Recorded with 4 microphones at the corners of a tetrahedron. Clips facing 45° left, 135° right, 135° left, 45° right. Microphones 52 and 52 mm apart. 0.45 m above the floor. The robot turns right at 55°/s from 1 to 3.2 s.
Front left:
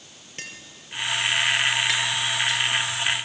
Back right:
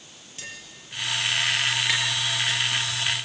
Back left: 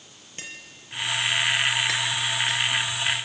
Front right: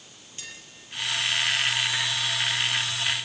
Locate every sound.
0.4 s tapping: 90° left, 6.5 m; by 2.6 s straight behind, 6.5 m